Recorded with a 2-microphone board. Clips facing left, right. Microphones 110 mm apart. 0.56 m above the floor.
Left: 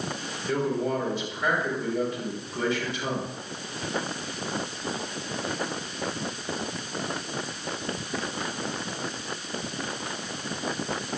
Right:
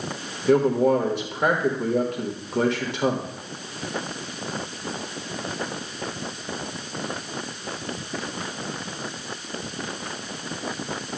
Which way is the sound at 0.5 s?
60° right (ahead or behind).